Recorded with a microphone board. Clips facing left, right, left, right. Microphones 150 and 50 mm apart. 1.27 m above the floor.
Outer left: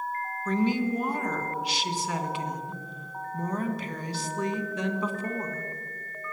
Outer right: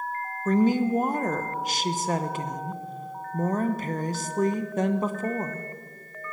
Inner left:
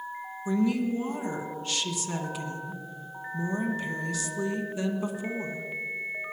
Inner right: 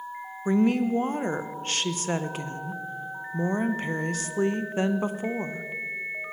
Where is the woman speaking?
50° right (ahead or behind), 0.9 m.